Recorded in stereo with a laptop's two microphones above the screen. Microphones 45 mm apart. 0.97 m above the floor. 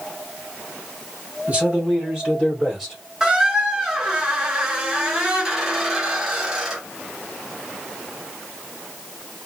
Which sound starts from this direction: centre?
A squeak, at 3.2 s.